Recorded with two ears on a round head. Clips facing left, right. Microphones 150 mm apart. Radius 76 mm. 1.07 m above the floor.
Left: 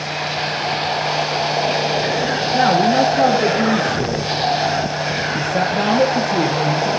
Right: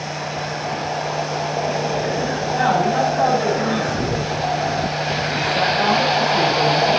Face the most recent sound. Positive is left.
turn(degrees=55)  # may be behind; listen again after turning